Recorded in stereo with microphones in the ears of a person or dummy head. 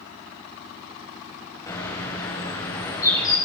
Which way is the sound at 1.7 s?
20° left (ahead or behind).